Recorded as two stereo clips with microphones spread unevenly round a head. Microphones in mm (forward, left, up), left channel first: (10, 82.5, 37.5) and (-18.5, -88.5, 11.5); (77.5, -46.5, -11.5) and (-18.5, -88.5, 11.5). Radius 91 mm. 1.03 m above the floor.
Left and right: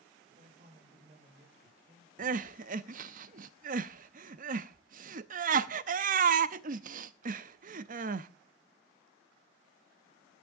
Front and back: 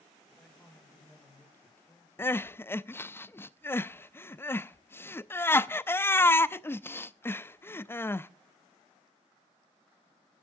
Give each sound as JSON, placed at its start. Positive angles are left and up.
{"t": 0.3, "sound": "a man speaking", "azimuth_deg": -55, "distance_m": 6.0}
{"t": 2.2, "sound": "crying", "azimuth_deg": -50, "distance_m": 0.6}